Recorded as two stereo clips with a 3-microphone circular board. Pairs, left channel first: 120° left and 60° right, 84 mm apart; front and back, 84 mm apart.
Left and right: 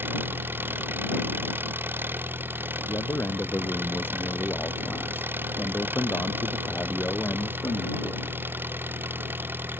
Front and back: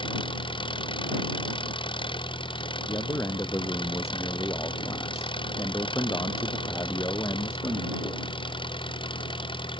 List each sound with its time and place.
0.0 s an engine running: 5° left
2.9 s a man speaking: 55° left